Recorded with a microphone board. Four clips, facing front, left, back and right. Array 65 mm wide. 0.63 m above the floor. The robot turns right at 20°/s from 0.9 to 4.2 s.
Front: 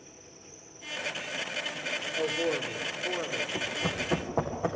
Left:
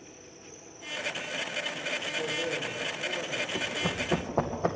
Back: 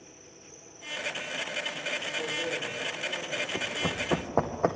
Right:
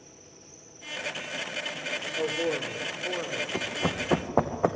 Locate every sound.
0.0 s an insect: 105° left, 6 m; by 4.8 s 175° left, 6 m
2.1 s a man speaking: 60° right, 1.7 m; by 3.4 s 35° right, 1.7 m
3.5 s running footsteps: 110° right, 3 m; by 4.8 s 135° right, 2.5 m